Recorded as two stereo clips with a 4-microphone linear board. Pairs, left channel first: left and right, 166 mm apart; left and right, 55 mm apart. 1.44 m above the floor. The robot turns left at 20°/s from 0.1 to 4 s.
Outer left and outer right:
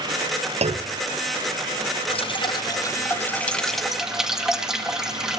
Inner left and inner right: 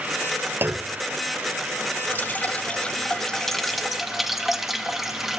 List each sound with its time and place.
0.6 s a clunk: 40° right (ahead or behind), 0.8 m; by 1.0 s 35° right (ahead or behind), 0.8 m
2.1 s dripping: 35° left, 1.6 m; by 5.4 s 5° right, 1.6 m